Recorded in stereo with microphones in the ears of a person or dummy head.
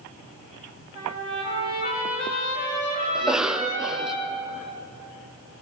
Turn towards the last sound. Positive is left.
turn(degrees=0)  # may be behind; listen again after turning